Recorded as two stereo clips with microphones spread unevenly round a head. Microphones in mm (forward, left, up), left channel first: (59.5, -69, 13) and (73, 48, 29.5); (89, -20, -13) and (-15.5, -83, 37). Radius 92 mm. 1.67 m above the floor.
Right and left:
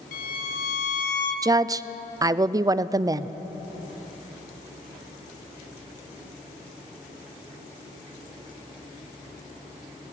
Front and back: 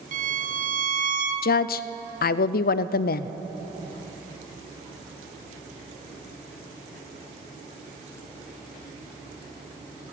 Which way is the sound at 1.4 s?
20° left.